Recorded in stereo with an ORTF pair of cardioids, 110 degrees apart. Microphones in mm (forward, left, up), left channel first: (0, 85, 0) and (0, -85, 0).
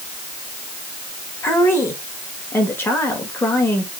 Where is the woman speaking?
15° left, 2.5 m.